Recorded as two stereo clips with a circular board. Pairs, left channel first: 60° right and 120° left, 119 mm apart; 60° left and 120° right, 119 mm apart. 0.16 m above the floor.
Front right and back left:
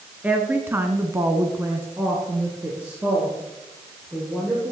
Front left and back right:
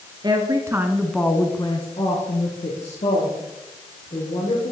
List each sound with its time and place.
0.2 s a woman speaking: 165° right, 1.8 m; by 4.7 s 40° left, 5.5 m